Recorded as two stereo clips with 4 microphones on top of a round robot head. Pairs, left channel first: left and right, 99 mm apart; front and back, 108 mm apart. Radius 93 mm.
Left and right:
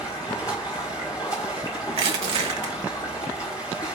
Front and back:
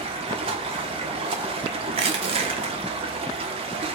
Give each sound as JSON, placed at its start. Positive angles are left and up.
{"t": 0.0, "sound": "running water", "azimuth_deg": 160, "distance_m": 1.4}
{"t": 1.9, "sound": "crushing", "azimuth_deg": -130, "distance_m": 1.1}